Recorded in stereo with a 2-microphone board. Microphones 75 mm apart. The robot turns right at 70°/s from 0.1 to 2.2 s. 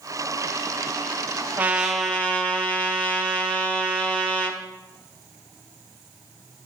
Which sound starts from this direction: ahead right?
A trumpet, at 1.6 s.